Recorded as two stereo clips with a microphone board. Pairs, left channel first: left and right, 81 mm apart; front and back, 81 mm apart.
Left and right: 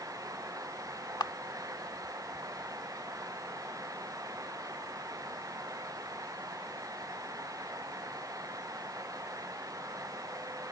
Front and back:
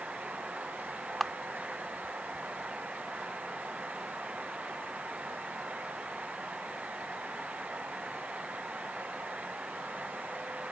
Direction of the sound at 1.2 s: 90° left.